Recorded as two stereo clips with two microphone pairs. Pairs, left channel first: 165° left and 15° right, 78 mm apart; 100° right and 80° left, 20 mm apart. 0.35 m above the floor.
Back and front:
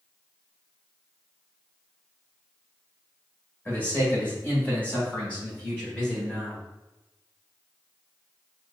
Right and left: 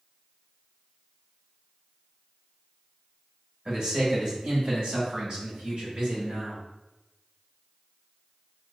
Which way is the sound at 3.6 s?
115° left.